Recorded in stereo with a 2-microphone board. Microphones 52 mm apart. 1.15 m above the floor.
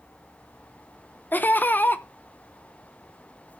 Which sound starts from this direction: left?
Laughter, at 1.3 s.